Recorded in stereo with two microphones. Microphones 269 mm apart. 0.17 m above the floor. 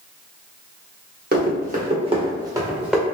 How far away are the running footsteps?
About 1.8 m.